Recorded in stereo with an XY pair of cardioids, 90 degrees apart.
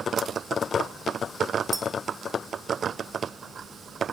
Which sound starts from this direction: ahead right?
A clink, at 1.7 s.